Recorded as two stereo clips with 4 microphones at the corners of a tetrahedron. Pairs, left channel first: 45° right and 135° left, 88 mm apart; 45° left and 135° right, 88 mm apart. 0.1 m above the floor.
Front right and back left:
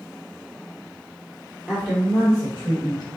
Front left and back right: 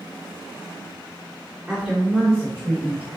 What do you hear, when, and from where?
1.7 s a woman speaking: 155° left, 1.3 m; by 3.1 s 150° left, 3 m